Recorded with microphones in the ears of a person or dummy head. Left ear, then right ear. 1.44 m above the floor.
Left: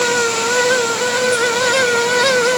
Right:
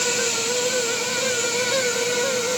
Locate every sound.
Only background noise.